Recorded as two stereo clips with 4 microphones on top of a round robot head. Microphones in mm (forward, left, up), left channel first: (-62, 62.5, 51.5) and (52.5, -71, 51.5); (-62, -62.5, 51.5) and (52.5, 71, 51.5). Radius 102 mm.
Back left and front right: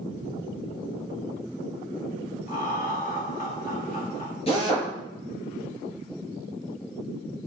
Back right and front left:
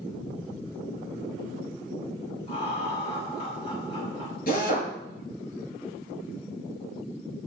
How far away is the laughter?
About 4.5 m.